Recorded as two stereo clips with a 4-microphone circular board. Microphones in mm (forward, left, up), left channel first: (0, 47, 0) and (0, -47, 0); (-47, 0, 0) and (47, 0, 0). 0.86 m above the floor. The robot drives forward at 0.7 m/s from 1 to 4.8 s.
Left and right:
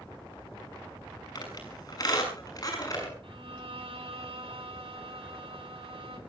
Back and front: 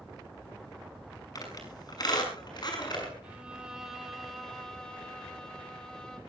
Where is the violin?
75° right, 3 m; by 6.2 s 100° right, 3 m.